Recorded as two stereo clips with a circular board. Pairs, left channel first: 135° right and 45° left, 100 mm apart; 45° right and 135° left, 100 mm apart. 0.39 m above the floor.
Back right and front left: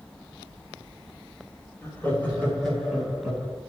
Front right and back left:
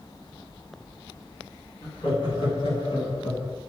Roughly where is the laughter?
Right.